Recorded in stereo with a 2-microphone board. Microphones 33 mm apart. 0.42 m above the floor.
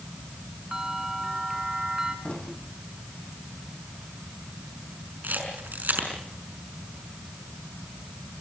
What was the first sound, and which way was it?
A bell, 15° right (ahead or behind).